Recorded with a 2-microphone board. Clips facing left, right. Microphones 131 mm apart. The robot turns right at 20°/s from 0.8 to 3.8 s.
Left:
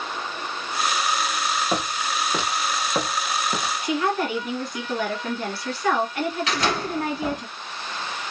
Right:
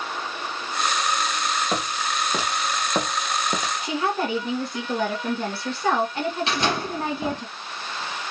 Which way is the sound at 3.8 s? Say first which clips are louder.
Left 2 dB; 30° right (ahead or behind).